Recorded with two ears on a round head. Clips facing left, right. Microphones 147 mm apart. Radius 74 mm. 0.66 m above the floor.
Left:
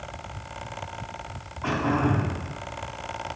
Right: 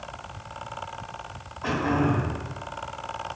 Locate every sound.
1.6 s throat clearing: 10° right (ahead or behind), 0.9 m